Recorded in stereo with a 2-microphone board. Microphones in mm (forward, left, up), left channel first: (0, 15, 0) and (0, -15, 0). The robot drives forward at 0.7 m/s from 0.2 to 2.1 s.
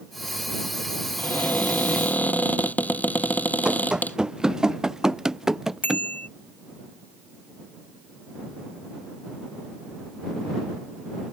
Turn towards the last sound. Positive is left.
turn(degrees=70)  # may be behind; listen again after turning